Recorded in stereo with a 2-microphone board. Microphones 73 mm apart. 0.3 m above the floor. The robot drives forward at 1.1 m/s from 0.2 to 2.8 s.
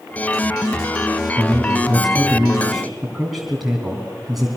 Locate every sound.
1.4 s a man speaking: 5° right (ahead or behind), 1.9 m